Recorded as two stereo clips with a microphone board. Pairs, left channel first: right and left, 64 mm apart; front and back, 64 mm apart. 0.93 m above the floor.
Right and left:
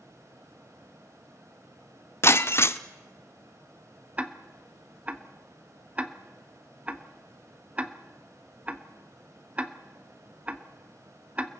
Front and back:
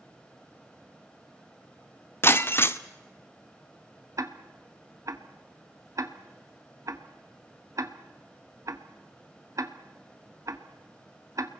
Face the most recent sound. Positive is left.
turn(degrees=160)